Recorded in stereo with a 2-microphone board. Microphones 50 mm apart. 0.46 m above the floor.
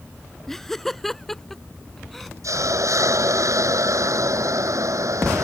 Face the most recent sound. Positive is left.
turn(degrees=-80)